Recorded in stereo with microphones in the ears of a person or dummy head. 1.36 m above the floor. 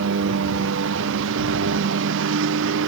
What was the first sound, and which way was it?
A lawn mower, 65° right (ahead or behind).